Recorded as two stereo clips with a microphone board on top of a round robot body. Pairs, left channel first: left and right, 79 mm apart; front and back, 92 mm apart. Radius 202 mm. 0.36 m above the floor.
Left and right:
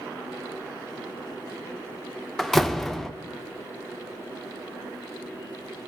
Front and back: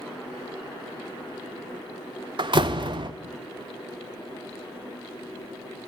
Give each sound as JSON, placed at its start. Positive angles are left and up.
{"t": 2.4, "sound": "a door slam", "azimuth_deg": 175, "distance_m": 1.2}